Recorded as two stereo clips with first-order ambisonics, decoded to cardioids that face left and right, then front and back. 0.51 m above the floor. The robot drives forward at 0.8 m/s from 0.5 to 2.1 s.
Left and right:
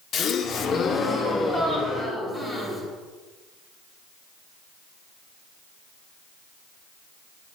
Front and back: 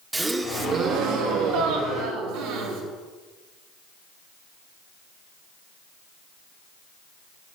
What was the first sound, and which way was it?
A gasp, 105° left.